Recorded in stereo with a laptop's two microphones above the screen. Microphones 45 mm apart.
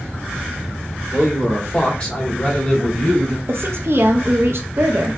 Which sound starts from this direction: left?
A man speaking, at 1.1 s.